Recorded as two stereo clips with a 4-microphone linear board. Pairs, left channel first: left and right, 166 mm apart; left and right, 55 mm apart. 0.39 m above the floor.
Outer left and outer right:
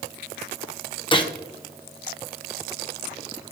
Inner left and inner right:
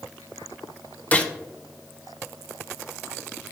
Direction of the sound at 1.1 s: 30° left (ahead or behind).